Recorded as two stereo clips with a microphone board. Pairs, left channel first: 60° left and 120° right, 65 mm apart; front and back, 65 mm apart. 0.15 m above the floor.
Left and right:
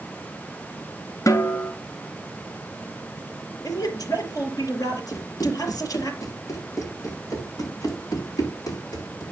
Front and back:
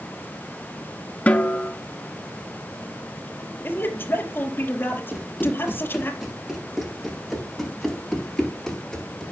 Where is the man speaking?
55° left, 3.5 m.